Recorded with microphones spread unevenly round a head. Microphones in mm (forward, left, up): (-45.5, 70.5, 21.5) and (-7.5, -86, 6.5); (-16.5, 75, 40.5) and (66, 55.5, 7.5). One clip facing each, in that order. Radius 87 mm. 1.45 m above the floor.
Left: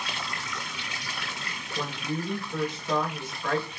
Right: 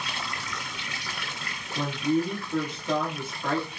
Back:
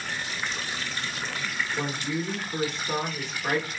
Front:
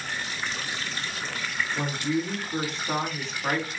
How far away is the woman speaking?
About 2.5 m.